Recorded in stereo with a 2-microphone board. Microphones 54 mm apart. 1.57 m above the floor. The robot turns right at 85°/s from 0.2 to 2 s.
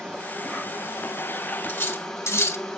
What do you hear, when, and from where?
0.0 s an insect: 15° left, 2.5 m; by 2.8 s 165° left, 2.5 m
1.7 s cutlery clinking: 35° left (ahead or behind), 1.8 m; by 2.8 s 55° left (ahead or behind), 1.8 m